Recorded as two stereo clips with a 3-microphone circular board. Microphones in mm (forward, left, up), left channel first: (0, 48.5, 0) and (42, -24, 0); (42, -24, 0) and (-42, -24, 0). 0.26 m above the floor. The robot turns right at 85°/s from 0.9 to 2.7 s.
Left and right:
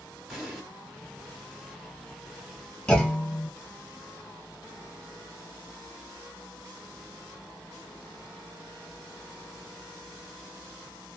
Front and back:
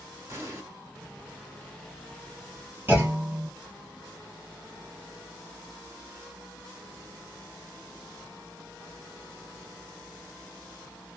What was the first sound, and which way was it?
An explosion, 150° right.